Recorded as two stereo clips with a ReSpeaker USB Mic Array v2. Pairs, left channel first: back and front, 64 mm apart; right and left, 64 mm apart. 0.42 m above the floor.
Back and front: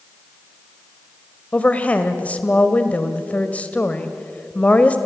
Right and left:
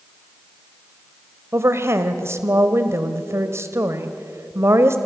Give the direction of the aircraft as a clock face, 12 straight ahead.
No aircraft in this recording.